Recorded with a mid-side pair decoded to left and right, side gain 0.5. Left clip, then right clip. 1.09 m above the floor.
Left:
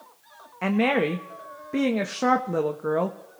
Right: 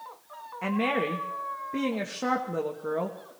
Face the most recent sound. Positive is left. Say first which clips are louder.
# left 4 dB
turn(degrees=40)